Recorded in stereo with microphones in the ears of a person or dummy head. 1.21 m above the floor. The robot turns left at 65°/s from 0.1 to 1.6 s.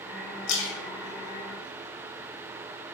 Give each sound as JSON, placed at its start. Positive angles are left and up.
{"t": 0.5, "sound": "a splash", "side_deg": 70, "distance_m": 1.3}